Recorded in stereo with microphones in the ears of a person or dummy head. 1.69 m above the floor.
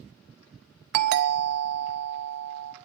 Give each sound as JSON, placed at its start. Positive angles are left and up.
{"t": 0.9, "sound": "a doorbell", "side_deg": -60, "distance_m": 0.7}